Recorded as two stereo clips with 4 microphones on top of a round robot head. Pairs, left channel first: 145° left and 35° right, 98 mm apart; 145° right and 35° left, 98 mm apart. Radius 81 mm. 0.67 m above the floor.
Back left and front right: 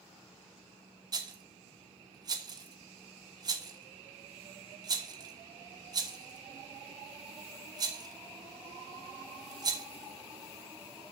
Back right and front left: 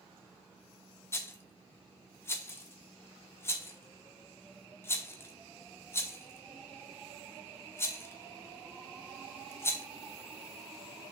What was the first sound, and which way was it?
A rattle, 80° right.